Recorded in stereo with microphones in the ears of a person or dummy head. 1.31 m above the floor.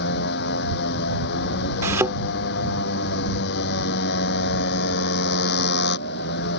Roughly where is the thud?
Centre.